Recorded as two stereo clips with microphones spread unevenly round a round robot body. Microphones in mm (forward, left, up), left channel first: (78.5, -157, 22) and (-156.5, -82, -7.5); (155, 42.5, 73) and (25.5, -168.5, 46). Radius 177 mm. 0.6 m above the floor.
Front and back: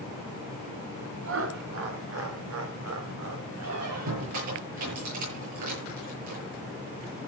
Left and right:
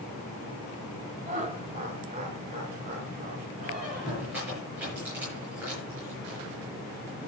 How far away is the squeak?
About 8 m.